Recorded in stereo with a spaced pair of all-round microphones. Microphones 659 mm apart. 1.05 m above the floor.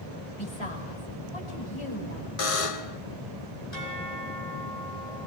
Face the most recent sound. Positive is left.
turn(degrees=85)